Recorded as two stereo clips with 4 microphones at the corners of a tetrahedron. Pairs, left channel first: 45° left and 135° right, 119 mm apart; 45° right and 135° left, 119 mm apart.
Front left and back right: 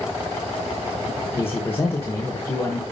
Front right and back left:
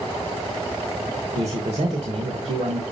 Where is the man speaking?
115° left, 1.3 m.